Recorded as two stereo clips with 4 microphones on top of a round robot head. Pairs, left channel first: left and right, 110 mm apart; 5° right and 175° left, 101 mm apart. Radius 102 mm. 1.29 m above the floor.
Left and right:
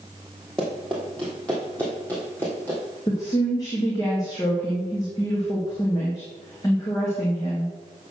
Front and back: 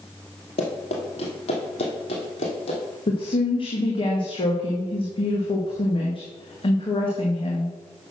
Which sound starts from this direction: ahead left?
A woman speaking, at 3.1 s.